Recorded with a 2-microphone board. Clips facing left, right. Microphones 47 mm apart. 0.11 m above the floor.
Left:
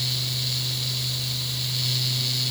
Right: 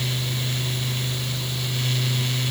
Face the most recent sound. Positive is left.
No sound to turn to.